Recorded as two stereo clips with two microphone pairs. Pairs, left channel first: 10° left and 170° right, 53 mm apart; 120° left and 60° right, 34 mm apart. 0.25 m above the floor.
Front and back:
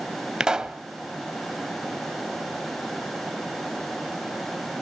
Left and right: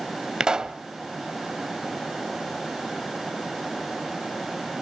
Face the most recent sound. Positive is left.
turn(degrees=-110)